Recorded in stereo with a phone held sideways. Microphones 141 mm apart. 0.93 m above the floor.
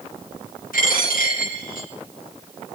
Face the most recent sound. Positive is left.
turn(degrees=85)